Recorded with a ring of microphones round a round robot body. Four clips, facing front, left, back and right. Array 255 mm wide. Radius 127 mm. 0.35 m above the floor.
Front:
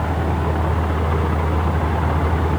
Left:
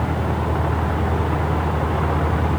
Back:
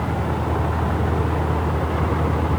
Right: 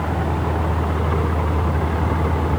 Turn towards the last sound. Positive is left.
No sound to turn to.